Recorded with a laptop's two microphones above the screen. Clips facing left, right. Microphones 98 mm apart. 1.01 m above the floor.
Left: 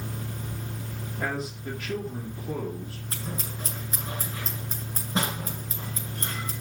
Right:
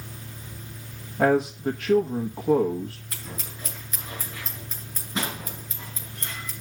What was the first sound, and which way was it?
A fan, 55° left (ahead or behind).